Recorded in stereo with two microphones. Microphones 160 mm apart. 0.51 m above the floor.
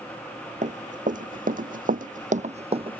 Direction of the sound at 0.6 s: 55° right (ahead or behind).